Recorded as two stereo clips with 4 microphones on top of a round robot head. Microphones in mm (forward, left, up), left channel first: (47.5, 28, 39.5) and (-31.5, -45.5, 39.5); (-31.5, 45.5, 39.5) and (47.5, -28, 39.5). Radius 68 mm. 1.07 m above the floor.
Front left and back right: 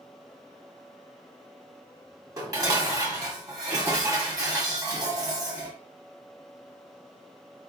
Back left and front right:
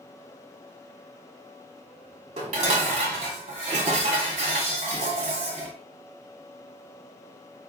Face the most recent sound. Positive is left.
turn(degrees=-80)